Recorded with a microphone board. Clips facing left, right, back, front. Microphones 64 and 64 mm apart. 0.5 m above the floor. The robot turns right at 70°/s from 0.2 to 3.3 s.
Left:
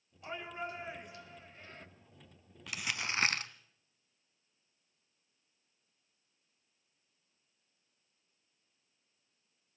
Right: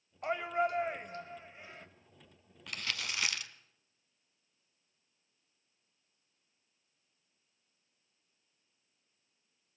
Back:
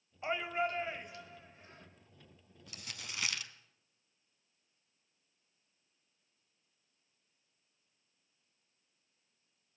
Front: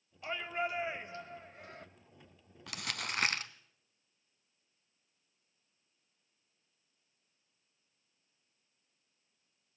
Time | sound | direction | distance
0.2 | a shout | 115° right | 2 m
2.7 | crumpling | straight ahead | 0.9 m